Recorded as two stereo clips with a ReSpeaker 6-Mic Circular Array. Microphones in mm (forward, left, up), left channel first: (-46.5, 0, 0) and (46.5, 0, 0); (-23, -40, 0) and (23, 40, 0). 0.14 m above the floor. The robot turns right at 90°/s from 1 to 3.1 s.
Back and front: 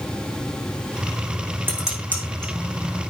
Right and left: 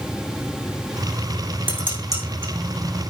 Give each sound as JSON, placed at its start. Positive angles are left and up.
{"t": 1.7, "sound": "dishes clattering", "azimuth_deg": 70, "distance_m": 5.5}